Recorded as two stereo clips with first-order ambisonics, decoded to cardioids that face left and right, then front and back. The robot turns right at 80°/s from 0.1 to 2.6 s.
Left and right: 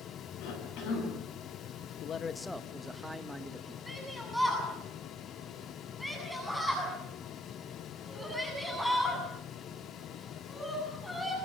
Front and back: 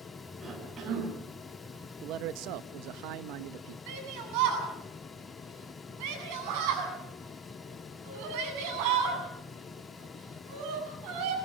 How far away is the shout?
About 8 m.